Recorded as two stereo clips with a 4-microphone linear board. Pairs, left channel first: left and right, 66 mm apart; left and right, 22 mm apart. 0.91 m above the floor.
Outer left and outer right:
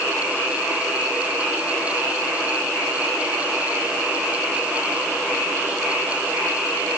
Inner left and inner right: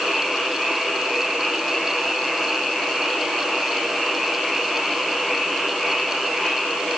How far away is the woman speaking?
No woman speaking in this recording.